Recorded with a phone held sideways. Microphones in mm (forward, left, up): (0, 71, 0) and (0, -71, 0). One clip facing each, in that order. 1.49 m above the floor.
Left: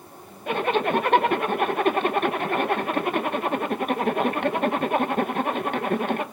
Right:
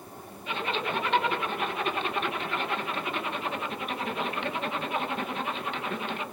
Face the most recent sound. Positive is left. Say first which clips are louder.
# left 9 dB
turn(degrees=55)  # may be behind; listen again after turning